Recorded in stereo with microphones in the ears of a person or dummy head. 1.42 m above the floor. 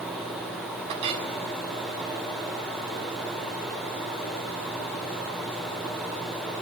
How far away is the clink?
About 5.5 m.